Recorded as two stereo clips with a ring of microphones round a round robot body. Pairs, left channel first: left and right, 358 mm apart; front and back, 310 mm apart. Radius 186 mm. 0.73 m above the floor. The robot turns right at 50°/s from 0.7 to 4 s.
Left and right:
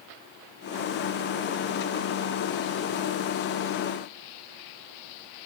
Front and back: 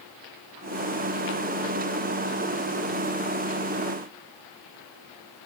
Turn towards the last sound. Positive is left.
No sound to turn to.